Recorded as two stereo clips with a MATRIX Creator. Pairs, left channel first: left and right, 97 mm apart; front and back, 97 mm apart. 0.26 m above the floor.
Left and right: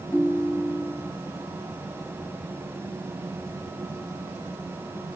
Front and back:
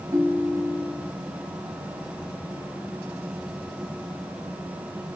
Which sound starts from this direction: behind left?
A ringtone, at 0.1 s.